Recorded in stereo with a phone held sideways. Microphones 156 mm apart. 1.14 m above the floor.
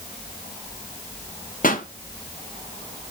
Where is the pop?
55° left (ahead or behind), 1.7 m.